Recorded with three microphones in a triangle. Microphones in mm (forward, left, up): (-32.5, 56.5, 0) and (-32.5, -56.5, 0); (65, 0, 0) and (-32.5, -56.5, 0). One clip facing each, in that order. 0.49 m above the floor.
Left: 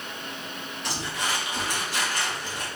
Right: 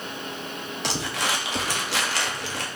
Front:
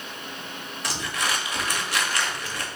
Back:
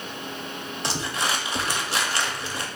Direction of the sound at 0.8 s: 85° right.